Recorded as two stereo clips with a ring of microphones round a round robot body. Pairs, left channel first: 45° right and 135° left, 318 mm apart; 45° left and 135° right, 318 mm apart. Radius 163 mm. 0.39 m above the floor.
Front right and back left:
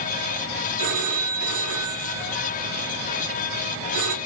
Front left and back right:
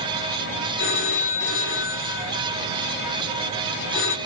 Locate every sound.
0.8 s a phone ringing: 100° left, 4.5 m